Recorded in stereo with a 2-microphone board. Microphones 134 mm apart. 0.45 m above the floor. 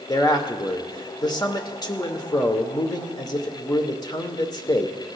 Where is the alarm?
I don't hear an alarm.